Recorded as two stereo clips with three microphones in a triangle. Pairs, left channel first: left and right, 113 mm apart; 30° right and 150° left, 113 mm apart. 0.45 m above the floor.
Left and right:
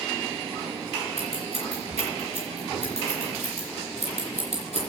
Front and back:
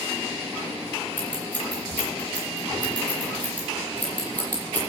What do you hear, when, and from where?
1.2 s scissors: 110° right, 9 m